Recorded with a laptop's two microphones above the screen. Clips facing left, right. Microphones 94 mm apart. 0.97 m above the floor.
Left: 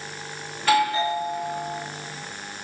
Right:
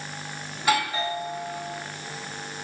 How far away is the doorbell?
About 0.9 m.